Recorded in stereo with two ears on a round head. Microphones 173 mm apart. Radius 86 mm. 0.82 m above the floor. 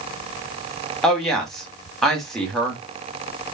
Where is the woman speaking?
Centre (ahead or behind), 1.5 m.